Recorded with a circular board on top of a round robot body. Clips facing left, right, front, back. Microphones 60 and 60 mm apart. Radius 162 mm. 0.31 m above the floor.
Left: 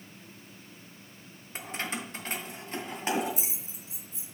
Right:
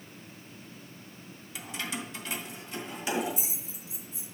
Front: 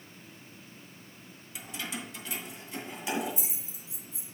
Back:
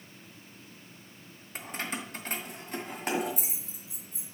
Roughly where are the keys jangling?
Behind left.